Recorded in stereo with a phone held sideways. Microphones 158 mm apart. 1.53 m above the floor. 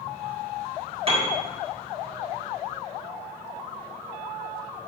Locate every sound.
1.1 s a piano: 35° right (ahead or behind), 2 m